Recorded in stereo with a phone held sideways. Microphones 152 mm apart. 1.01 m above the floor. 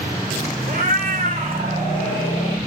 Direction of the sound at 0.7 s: 70° right (ahead or behind).